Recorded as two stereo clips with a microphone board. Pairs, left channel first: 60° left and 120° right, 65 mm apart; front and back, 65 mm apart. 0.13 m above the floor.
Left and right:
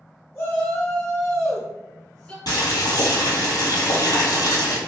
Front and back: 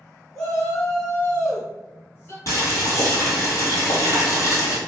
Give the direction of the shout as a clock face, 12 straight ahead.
10 o'clock.